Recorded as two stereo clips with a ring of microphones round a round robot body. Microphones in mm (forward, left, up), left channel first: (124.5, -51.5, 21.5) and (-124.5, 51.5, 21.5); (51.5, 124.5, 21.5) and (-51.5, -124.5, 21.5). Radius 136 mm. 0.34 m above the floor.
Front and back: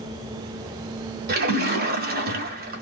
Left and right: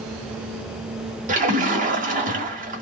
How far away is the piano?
No piano in this recording.